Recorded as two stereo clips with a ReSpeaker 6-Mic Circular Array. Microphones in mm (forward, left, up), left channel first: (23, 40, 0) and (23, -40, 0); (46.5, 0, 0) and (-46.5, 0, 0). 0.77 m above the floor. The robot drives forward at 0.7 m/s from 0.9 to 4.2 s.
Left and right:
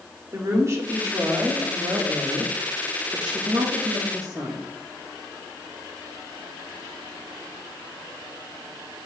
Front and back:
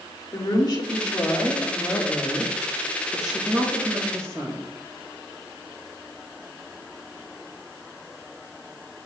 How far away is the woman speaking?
About 2 m.